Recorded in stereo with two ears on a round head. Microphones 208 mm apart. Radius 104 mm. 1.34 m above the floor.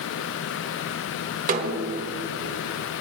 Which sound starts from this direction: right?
A snare drum, at 1.5 s.